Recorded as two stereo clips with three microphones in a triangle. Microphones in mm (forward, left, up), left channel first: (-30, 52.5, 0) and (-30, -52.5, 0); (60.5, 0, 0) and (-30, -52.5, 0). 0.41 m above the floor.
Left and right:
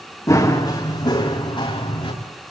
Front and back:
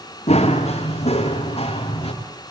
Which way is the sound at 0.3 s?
30° left.